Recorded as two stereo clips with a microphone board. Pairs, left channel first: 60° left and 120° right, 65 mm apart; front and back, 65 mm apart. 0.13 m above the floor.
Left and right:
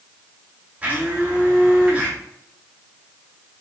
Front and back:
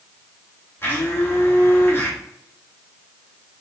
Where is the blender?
55° right, 2 m.